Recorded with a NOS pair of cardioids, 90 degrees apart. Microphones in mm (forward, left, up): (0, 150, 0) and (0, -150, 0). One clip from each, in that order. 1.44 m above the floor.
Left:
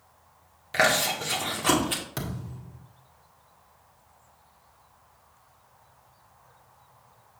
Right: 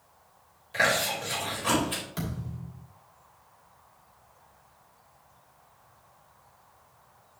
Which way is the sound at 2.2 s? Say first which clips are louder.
Left 1 dB; 50° left.